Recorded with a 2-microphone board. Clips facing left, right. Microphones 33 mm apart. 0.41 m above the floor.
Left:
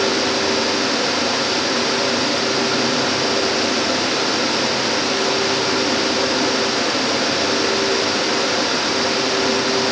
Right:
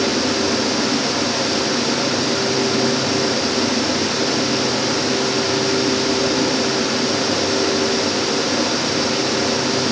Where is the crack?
I don't hear a crack.